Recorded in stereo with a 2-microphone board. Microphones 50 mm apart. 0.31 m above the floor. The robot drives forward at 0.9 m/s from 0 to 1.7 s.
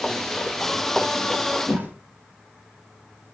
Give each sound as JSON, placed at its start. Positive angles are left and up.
{"t": 1.7, "sound": "a whoosh", "side_deg": -30, "distance_m": 2.5}